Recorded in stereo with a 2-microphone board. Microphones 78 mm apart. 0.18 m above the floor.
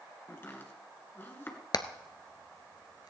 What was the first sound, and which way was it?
Chopping, 30° left (ahead or behind).